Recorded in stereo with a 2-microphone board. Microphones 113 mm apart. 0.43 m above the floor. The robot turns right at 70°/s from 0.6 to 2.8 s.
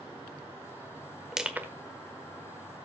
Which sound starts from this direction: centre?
Crushing, at 1.3 s.